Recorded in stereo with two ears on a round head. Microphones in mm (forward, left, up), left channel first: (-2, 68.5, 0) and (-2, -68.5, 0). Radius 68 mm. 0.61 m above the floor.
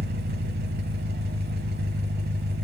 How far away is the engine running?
About 0.9 m.